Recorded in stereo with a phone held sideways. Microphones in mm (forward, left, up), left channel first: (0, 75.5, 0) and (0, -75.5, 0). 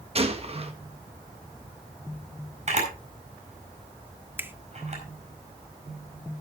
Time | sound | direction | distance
0.1 | a gunshot | 40° right (ahead or behind) | 1.3 m
2.7 | a camera shutter | 50° right (ahead or behind) | 4.5 m
4.4 | a finger snap | 15° right (ahead or behind) | 0.7 m